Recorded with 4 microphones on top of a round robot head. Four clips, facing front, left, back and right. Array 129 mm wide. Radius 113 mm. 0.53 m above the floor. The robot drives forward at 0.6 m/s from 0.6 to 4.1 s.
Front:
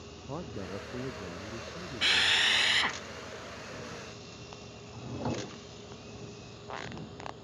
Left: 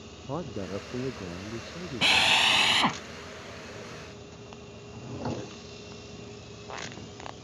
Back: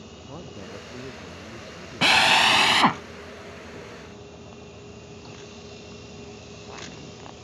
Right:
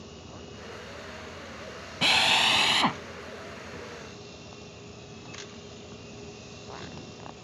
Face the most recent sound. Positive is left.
turn(degrees=50)